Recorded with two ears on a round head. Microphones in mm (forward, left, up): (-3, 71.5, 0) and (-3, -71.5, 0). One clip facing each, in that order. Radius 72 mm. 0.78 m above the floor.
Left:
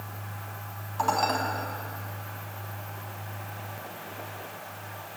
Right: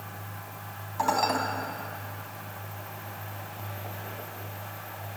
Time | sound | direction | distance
1.0 | dishes clattering | 5° right (ahead or behind) | 3.5 m